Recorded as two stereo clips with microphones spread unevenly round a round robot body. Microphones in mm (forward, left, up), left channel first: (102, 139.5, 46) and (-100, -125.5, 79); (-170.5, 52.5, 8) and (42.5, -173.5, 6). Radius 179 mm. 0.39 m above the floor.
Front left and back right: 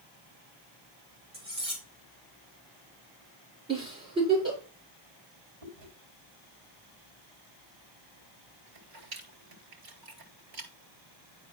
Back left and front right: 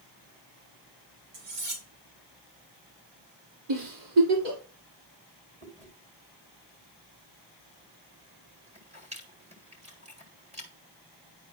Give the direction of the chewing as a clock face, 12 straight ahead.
4 o'clock.